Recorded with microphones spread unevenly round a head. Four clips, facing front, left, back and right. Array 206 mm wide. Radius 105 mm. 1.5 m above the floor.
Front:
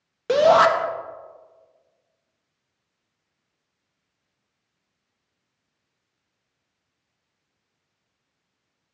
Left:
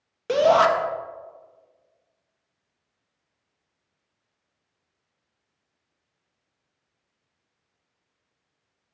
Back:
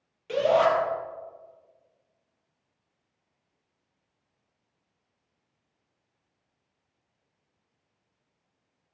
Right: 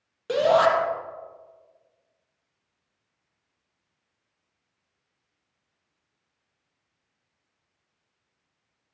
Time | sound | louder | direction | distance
0.3 | a shout | left 2 dB, front 7 dB | 10° left | 1.1 m